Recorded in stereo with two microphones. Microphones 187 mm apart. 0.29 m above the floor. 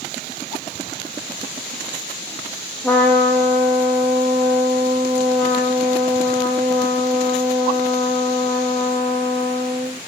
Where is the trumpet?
10° left (ahead or behind), 3 m.